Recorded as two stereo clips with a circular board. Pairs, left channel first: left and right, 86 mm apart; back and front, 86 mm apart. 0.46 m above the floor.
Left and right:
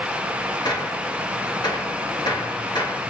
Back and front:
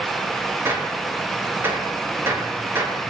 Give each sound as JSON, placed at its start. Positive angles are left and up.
{"t": 0.7, "sound": "a gunshot", "azimuth_deg": 60, "distance_m": 4.5}